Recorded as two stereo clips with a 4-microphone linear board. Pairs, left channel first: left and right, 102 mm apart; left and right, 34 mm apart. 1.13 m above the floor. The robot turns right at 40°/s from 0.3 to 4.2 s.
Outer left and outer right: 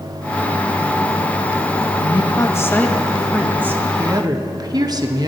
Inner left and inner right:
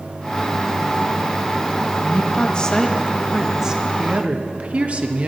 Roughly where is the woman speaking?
Behind left.